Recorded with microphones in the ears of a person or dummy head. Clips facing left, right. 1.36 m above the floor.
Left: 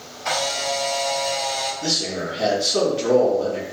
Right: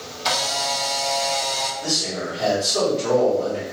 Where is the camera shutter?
45° right (ahead or behind), 1.1 m.